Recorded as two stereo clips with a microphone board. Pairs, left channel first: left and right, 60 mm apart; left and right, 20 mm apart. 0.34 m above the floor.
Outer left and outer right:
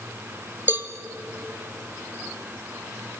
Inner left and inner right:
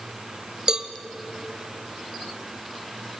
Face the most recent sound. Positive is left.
turn(degrees=-35)  # may be behind; listen again after turning